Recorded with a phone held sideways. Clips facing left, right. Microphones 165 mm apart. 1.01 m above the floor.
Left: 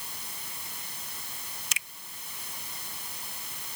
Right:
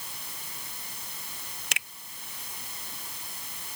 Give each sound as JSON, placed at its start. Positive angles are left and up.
{"t": 1.7, "sound": "a finger snap", "side_deg": -65}